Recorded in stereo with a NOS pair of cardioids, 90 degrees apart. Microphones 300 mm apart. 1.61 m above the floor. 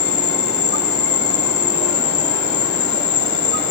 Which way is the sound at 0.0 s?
60° left.